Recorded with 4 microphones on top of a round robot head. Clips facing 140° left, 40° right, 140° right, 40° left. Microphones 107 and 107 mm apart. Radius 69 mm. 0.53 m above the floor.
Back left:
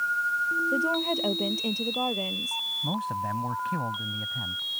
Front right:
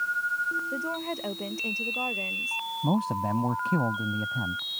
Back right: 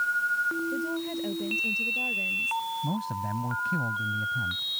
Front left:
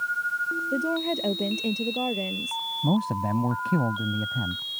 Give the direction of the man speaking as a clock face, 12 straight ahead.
12 o'clock.